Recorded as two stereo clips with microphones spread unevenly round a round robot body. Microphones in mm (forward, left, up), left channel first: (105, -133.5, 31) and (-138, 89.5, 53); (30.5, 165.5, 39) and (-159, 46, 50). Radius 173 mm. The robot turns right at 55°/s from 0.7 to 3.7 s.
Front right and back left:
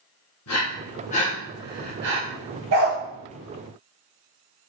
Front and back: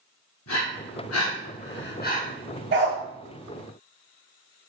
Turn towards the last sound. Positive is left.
turn(degrees=-130)